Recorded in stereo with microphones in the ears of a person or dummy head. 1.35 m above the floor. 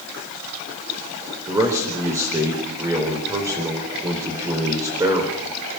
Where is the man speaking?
10° right (ahead or behind), 5 m.